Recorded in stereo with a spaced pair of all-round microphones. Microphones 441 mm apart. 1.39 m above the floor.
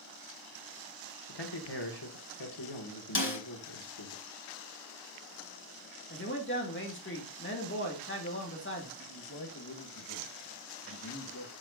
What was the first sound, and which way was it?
A man speaking, 60° left (ahead or behind).